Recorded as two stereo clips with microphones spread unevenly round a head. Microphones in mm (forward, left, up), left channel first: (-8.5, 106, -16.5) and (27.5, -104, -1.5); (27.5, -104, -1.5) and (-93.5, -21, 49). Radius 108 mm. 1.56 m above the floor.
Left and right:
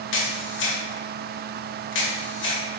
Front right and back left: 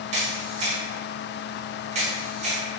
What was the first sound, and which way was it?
A camera shutter, 130° left.